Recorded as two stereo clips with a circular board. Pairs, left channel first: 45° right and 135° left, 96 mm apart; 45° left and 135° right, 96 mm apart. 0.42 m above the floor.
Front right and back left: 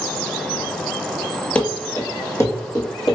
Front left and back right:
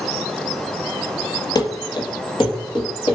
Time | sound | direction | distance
1.6 | running footsteps | 30° left | 0.5 m